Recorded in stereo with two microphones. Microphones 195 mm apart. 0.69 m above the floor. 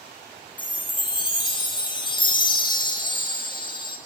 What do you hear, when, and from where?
0.6 s a chime: 25° left (ahead or behind), 0.6 m